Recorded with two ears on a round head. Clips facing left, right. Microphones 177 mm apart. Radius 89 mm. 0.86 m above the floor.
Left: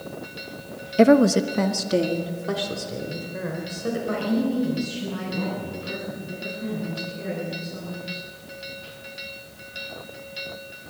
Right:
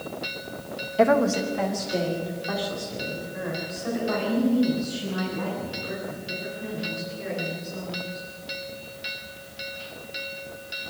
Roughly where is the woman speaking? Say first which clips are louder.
Left 5 dB; left.